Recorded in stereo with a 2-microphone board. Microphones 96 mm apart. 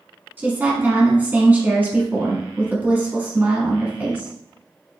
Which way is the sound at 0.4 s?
20° right (ahead or behind).